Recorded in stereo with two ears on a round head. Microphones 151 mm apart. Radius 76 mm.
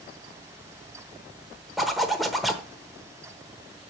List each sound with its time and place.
1.8 s a zipper: centre (ahead or behind), 1.0 m